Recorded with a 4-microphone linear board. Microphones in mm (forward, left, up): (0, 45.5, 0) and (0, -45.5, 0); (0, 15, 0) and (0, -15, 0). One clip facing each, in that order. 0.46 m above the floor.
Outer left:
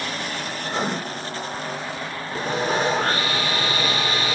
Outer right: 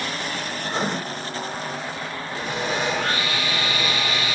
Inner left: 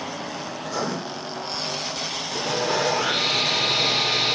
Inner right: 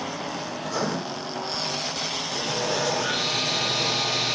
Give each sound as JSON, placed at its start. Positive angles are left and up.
{"t": 0.6, "sound": "writing", "side_deg": 0, "distance_m": 1.7}
{"t": 2.4, "sound": "sawing", "side_deg": 40, "distance_m": 0.6}